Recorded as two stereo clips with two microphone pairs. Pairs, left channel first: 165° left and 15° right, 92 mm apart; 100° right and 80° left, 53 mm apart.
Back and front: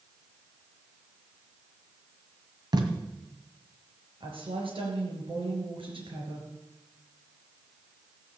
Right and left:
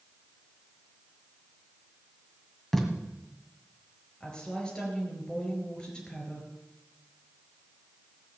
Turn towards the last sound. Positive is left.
turn(degrees=-25)